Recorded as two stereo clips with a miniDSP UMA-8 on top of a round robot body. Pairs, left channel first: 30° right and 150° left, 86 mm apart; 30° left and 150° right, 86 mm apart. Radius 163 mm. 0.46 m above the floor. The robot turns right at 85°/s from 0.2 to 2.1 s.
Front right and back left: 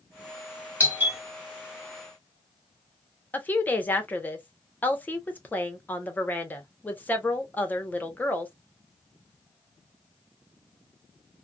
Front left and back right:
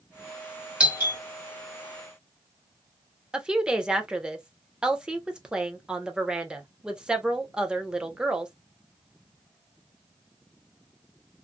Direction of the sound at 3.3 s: 80° right.